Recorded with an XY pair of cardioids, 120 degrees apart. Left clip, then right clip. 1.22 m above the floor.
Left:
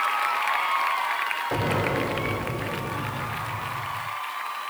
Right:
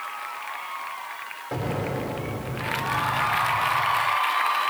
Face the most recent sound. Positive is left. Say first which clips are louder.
# even
turn(degrees=15)